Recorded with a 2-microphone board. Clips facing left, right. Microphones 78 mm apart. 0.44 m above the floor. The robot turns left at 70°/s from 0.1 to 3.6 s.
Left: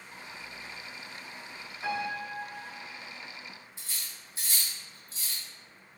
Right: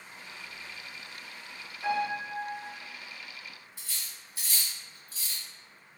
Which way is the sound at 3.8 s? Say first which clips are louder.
Left 1 dB; 25° left (ahead or behind).